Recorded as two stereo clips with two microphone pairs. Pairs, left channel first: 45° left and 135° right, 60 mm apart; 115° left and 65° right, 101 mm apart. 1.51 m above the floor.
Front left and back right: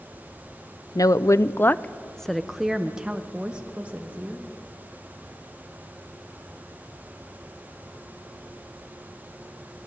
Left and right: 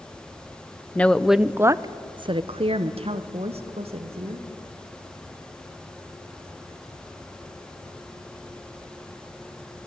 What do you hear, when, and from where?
0.9 s a woman speaking: 40° left, 0.6 m; by 4.5 s 65° right, 1.8 m